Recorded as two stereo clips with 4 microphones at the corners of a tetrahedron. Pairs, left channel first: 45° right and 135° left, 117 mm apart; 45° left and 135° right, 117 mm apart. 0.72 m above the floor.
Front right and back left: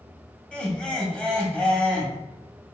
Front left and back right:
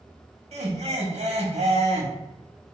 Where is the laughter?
125° right, 1.5 m.